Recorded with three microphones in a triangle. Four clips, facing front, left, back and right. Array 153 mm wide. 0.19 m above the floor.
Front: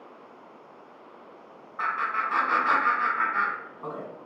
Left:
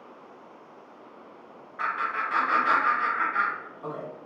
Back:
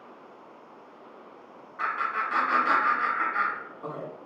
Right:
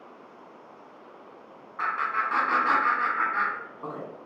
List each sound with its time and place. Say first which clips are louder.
1.8 s laughter: right 1 dB, front 1 dB; 45° right, 1.5 m